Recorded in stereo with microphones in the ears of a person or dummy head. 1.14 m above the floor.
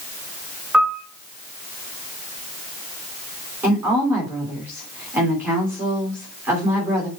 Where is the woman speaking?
10° right (ahead or behind), 3.5 m.